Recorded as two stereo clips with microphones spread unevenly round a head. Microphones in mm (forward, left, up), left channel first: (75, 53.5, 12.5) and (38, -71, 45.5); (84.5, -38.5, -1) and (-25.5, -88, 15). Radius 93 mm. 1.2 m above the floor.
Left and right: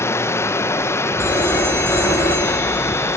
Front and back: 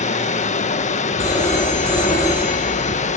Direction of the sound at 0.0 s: 5° left.